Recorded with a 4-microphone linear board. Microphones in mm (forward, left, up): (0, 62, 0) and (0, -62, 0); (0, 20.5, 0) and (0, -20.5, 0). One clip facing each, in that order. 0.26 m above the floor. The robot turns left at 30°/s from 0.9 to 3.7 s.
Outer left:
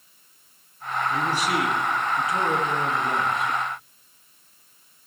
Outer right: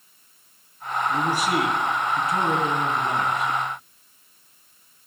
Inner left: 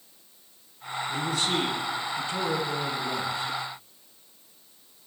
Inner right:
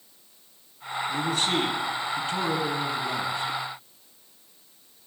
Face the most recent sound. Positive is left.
turn(degrees=-135)